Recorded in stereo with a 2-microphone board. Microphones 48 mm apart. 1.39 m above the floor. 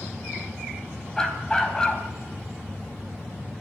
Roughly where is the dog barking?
Centre.